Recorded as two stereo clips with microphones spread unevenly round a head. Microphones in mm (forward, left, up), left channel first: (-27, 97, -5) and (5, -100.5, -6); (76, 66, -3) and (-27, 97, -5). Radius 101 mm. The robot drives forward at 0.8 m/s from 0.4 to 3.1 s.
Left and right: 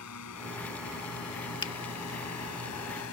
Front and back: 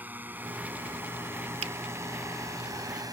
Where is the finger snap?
170° left.